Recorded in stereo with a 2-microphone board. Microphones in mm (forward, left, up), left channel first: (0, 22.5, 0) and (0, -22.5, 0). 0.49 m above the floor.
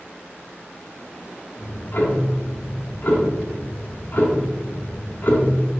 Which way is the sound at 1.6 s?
45° left (ahead or behind).